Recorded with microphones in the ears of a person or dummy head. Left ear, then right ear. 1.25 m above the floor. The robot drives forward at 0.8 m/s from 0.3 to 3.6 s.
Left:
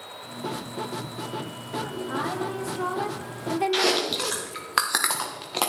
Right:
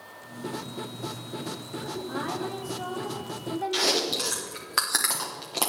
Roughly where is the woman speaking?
Centre.